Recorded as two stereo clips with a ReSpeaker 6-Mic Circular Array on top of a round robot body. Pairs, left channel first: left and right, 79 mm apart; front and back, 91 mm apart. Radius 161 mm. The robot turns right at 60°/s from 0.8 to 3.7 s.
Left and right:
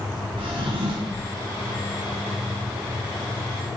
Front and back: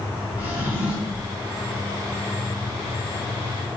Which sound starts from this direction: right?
A drawer, at 0.4 s.